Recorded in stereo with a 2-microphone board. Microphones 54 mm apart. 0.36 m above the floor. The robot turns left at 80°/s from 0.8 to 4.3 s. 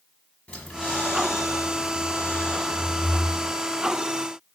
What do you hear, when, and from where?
0.5 s breathing: 150° left, 0.7 m; by 3.5 s 65° right, 0.7 m